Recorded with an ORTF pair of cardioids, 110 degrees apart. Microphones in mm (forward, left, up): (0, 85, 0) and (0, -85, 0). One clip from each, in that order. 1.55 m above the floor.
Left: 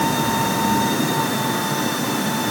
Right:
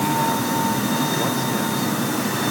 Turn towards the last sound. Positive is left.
No sound to turn to.